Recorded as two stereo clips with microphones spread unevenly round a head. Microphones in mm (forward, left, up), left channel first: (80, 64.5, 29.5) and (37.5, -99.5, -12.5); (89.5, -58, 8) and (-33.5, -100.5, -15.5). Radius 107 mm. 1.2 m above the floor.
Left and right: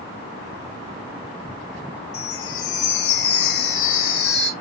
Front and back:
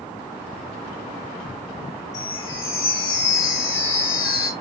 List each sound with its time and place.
2.1 s a chime: 95° left, 1.6 m